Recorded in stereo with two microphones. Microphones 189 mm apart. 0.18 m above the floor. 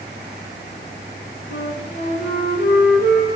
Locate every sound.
1.5 s a flute: 65° left (ahead or behind), 6 m